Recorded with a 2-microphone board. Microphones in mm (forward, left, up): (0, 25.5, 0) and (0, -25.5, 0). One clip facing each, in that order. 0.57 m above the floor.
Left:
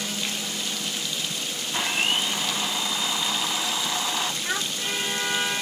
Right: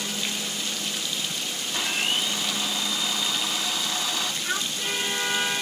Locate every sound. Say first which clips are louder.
1.7 s a blender: left 2 dB; 20° left (ahead or behind), 0.7 m
4.4 s a child speaking: even; 80° left, 2.0 m